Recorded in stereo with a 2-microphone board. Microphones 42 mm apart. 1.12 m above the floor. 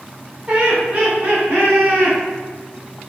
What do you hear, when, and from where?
0.5 s laughter: 25° right (ahead or behind), 1.6 m; by 2.2 s 50° right (ahead or behind), 2 m